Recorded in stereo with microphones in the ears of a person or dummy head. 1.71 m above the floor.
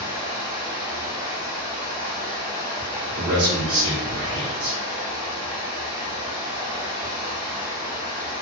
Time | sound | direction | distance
0.0 | running water | 15° right (ahead or behind) | 0.8 m
3.1 | a man speaking | 60° right (ahead or behind) | 1.1 m